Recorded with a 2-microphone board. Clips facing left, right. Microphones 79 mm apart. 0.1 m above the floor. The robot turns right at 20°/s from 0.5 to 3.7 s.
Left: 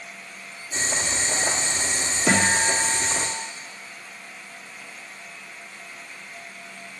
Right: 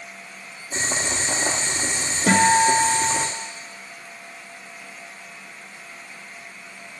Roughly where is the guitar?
Right.